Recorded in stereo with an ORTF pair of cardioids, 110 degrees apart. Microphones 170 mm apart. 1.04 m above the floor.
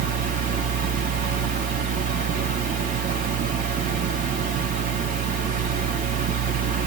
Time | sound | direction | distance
0.0 | a fan | 55° right | 1.0 m